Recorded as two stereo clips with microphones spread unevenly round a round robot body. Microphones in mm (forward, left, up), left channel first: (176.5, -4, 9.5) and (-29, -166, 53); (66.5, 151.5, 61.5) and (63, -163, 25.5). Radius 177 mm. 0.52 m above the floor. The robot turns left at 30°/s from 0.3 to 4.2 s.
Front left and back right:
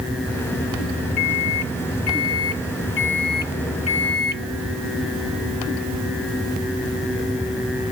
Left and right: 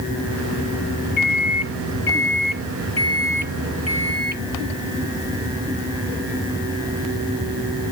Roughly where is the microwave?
Ahead left.